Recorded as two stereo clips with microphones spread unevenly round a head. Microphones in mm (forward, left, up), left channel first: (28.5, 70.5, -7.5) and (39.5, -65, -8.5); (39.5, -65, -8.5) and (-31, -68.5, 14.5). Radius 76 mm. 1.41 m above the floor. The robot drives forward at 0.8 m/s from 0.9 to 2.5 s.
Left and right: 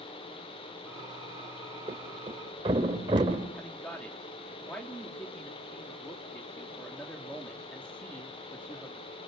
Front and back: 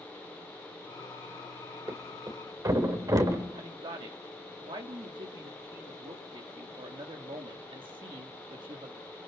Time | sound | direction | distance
1.9 | a thud | 140° right | 2.5 m
3.5 | a man speaking | 175° left | 2.5 m